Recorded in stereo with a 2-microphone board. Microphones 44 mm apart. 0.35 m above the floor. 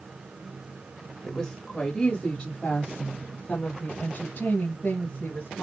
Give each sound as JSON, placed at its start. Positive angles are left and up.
{"t": 1.2, "sound": "a woman speaking", "side_deg": 10, "distance_m": 1.6}